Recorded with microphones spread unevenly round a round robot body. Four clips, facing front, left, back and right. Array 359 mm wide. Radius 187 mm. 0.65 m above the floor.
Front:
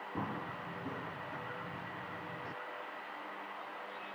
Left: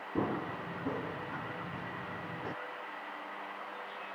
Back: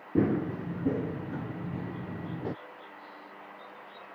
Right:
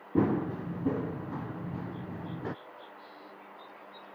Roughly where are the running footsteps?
Behind right.